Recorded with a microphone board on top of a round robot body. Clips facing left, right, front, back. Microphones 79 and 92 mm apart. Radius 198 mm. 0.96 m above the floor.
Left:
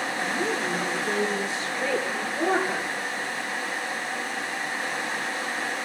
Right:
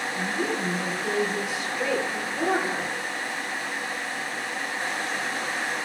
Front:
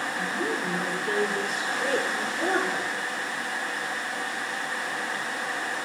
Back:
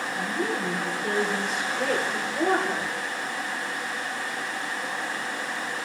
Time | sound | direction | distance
0.1 | a woman speaking | 135° right | 4.5 m